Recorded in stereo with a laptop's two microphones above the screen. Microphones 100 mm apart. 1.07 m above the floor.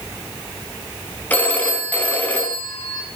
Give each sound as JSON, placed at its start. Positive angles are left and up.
{"t": 1.3, "sound": "a phone ringing", "side_deg": 15, "distance_m": 5.5}